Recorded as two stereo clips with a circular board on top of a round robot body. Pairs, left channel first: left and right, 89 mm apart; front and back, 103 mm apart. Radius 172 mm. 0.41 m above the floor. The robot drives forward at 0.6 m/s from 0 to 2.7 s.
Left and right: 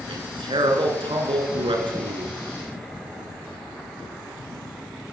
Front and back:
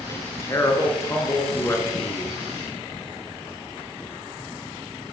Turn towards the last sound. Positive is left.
turn(degrees=-70)